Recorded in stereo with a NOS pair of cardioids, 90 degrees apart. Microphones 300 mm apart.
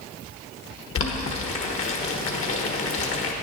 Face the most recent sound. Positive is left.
turn(degrees=45)